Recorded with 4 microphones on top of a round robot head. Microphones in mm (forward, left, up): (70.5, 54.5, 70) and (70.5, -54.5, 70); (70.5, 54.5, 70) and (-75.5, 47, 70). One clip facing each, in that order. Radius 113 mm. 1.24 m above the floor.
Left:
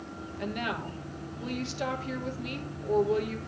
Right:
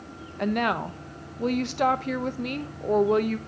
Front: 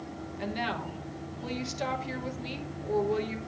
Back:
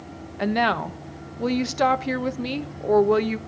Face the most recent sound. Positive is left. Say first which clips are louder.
# right 9 dB, back 11 dB
turn(degrees=-140)